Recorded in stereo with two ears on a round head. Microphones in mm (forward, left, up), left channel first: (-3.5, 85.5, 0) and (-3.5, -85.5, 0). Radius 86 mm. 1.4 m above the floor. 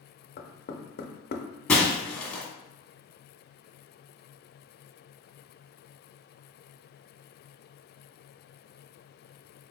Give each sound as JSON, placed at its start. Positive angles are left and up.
{"t": 0.4, "sound": "knocking", "side_deg": 50, "distance_m": 0.5}
{"t": 1.7, "sound": "breaking glass", "side_deg": 5, "distance_m": 1.3}